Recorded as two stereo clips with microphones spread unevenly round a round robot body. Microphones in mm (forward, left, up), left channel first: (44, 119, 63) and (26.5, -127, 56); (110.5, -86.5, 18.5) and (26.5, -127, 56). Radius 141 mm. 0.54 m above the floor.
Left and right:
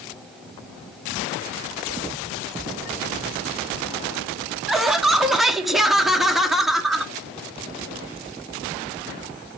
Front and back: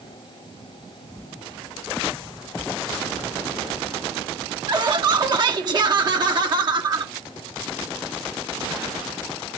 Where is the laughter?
175° right, 0.7 m.